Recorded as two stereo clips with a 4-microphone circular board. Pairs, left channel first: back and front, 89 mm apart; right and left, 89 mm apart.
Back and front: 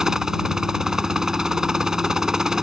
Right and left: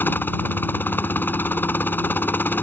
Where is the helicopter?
75° right.